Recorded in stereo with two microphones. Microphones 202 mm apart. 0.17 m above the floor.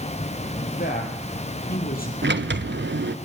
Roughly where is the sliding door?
Right.